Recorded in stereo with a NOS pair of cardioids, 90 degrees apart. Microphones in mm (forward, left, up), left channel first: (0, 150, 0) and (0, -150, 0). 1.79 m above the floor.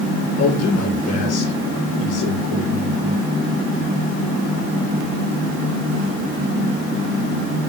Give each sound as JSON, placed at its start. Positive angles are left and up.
{"t": 0.4, "sound": "a man speaking", "azimuth_deg": 60, "distance_m": 6.5}